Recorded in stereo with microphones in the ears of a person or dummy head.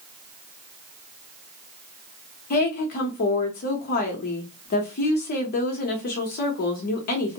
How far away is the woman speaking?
About 0.7 m.